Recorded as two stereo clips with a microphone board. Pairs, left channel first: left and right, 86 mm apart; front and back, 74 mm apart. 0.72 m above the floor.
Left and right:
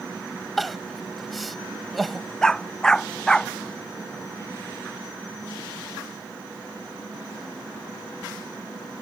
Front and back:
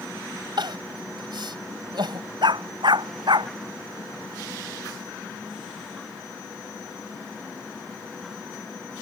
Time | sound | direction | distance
0.6 | crying | straight behind | ?
2.4 | a dog barking | 170° left | ?